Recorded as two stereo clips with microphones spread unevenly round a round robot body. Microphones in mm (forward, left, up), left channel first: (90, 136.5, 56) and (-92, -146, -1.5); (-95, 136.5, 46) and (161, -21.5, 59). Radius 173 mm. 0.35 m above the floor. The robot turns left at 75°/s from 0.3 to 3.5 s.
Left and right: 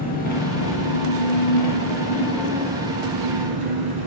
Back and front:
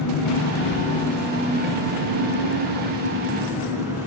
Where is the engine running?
125° left, 2.5 m; by 4.1 s 115° right, 2.5 m.